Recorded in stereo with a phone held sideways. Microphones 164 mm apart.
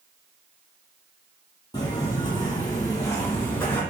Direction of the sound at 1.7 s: 25° left (ahead or behind).